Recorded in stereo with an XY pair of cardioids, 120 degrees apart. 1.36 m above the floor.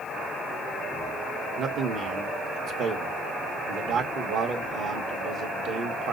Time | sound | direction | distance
1.6 | a man speaking | 55° right | 1.7 m